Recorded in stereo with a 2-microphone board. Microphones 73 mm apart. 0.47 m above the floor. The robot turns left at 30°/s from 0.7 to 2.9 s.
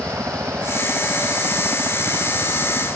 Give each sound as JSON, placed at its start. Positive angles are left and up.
{"t": 0.0, "sound": "a helicopter", "side_deg": -45}